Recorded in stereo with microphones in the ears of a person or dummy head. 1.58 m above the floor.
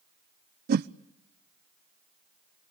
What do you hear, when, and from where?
0.7 s a whoosh: 50° right (ahead or behind), 0.6 m